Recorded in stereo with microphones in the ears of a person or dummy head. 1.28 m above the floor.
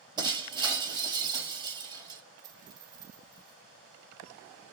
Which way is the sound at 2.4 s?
20° right (ahead or behind).